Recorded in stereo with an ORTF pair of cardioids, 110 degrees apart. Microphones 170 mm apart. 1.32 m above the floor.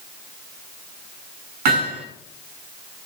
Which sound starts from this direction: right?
Hammering, at 1.6 s.